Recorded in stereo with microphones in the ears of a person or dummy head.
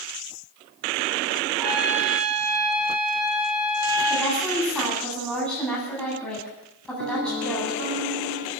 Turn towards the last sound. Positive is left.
turn(degrees=-75)  # may be behind; listen again after turning